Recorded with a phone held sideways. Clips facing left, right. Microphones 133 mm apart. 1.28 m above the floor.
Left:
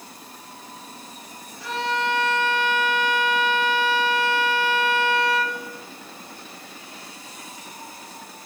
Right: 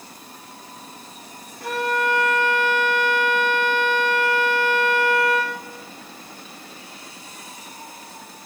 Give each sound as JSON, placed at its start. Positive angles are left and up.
{"t": 1.6, "sound": "a violin", "side_deg": -50, "distance_m": 2.0}